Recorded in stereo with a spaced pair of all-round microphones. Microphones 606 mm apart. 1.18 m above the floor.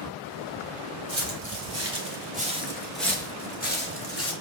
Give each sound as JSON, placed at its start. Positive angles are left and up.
{"t": 1.1, "sound": "footsteps", "side_deg": -35, "distance_m": 1.4}